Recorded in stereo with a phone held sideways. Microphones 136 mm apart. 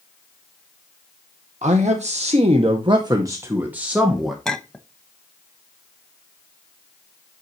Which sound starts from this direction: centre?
A clink, at 4.5 s.